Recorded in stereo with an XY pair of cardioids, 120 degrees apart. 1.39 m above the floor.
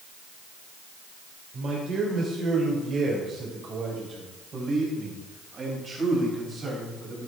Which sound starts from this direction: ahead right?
A man speaking, at 1.5 s.